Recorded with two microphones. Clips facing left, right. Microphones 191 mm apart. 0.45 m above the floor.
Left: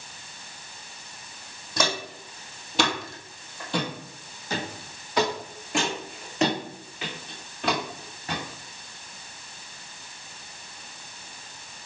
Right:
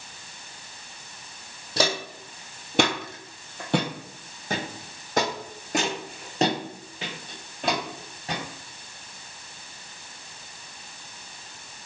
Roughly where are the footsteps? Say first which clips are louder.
Right 2 dB; right.